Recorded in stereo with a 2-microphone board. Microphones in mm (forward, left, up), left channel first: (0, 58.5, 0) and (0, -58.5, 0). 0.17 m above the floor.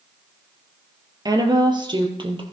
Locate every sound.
1.2 s a woman speaking: 35° right (ahead or behind), 3.5 m; by 2.4 s 45° right (ahead or behind), 4 m